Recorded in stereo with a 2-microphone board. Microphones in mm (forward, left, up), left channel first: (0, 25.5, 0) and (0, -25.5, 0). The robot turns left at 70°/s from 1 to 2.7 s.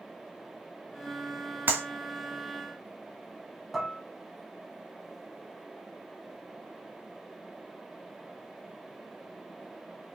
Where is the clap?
40° right (ahead or behind), 1.0 m; by 1.8 s 35° right (ahead or behind), 1.0 m.